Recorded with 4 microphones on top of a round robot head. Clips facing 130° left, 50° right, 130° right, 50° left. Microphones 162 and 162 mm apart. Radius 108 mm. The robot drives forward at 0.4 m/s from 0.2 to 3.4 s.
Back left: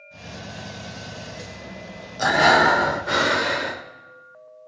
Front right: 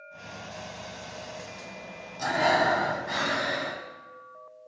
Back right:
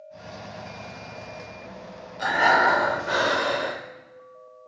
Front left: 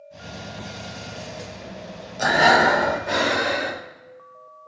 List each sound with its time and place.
2.2 s breathing: 100° left, 0.6 m; by 3.8 s 135° left, 0.9 m